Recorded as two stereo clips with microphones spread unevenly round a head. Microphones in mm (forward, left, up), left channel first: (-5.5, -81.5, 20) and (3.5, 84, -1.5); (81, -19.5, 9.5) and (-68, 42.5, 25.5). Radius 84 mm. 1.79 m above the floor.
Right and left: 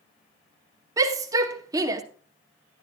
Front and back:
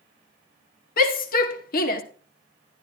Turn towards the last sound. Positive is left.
turn(degrees=15)